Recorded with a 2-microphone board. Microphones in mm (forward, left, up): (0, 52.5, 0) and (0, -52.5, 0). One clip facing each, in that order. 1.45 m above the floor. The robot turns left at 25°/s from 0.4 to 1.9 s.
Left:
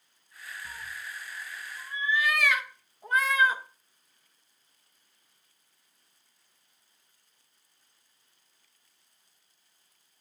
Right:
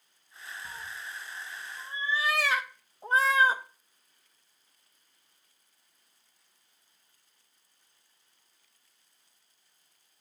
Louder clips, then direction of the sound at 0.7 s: Even; 20° right (ahead or behind).